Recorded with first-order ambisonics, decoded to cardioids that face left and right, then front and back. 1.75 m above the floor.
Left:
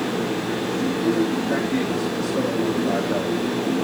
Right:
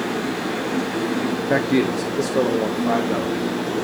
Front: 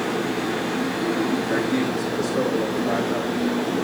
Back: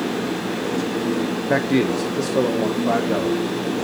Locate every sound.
1.5 s a man speaking: 140° right, 0.7 m